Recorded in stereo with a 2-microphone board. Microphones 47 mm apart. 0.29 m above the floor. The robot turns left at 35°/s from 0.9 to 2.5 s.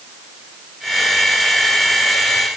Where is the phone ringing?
I don't hear a phone ringing.